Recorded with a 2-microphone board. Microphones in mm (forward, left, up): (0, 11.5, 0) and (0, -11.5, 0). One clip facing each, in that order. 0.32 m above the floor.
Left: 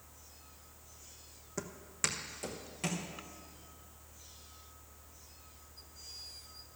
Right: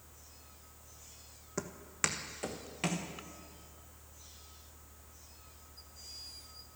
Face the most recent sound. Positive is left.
turn(degrees=-25)  # may be behind; listen again after turning